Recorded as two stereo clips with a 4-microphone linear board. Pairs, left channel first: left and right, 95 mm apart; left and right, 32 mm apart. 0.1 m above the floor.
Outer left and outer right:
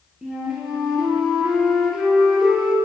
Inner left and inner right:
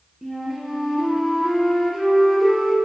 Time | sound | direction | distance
0.2 | a flute | 5° right (ahead or behind) | 2.5 m